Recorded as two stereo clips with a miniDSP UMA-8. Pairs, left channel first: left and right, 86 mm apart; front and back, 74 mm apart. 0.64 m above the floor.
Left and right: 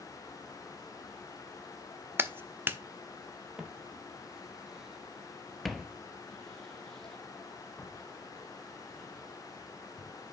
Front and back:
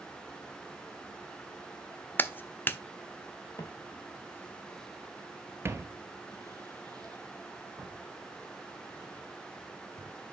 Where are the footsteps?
15° right, 1.0 m; by 10.1 s 170° left, 3 m.